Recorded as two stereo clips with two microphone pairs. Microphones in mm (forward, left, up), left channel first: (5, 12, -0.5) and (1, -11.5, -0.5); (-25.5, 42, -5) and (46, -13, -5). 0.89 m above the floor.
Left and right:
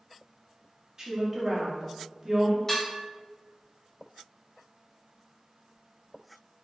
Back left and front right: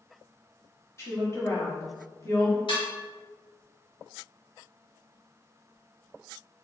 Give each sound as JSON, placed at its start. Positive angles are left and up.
{"t": 1.0, "sound": "a woman speaking", "azimuth_deg": -165, "distance_m": 1.5}
{"t": 2.7, "sound": "dishes clattering", "azimuth_deg": 150, "distance_m": 1.2}